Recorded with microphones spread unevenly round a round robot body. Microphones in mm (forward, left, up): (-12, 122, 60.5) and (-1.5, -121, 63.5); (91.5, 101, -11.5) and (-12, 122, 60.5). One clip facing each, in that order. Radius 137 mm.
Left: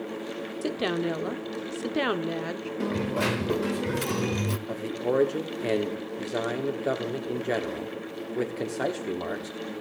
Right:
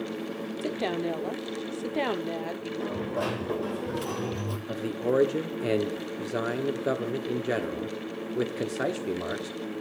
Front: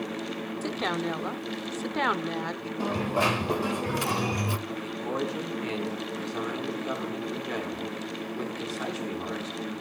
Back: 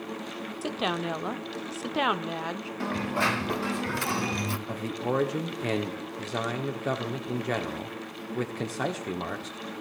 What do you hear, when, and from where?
0.6 s a woman speaking: 35° left, 1.0 m
2.8 s a dropped coin: 35° left, 0.9 m
4.7 s a man speaking: 160° right, 1.3 m